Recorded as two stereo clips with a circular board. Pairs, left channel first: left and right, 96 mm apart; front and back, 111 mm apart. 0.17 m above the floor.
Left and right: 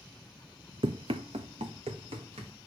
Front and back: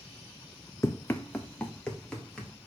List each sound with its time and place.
0.8 s running footsteps: 65° right, 0.7 m; by 2.5 s 85° right, 3 m